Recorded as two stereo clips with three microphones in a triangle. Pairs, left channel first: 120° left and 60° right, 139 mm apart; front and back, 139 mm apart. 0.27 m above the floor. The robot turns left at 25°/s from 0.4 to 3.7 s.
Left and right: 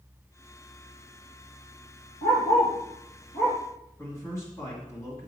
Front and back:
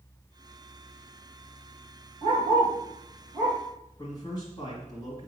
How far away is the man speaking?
About 1.9 m.